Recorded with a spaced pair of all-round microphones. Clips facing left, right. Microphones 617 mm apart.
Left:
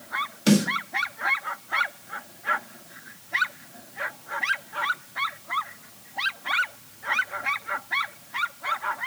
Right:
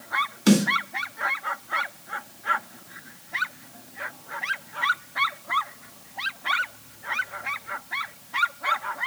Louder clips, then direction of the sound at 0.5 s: Right 1 dB; 5° left (ahead or behind).